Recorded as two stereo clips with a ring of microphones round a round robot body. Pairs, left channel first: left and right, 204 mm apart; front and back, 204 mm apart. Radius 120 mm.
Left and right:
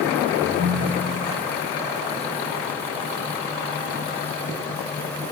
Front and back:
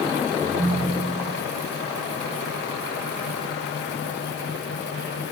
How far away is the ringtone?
About 1.6 m.